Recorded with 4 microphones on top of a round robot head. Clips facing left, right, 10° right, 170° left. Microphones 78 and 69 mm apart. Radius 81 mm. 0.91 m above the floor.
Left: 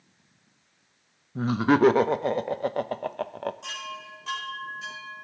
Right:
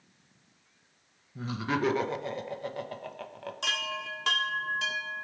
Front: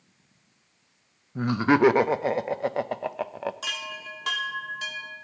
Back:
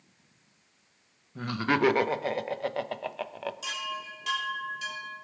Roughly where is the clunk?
I don't hear a clunk.